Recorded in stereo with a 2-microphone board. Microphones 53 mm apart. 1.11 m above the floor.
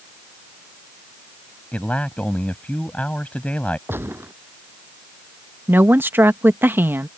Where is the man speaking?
25° left (ahead or behind).